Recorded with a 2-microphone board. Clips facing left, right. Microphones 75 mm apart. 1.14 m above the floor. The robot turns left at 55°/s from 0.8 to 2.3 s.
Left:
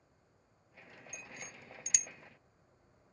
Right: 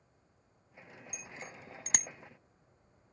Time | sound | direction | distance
1.1 | a bicycle bell | 15° right (ahead or behind) | ?